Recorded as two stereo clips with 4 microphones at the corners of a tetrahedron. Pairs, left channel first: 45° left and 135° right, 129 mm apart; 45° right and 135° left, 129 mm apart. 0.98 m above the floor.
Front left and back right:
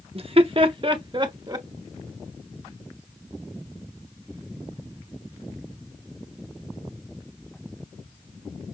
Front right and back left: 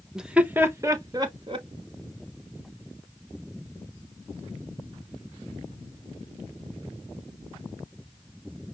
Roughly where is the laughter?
Behind right.